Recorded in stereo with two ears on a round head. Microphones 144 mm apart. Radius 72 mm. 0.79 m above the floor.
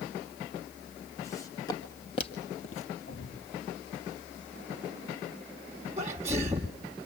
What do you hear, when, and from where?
1.2 s footsteps: 20° left (ahead or behind), 2.5 m; by 2.9 s 50° left (ahead or behind), 1.3 m
3.1 s a thud: 85° left, 5.5 m
6.0 s a sneeze: 15° right (ahead or behind), 1.4 m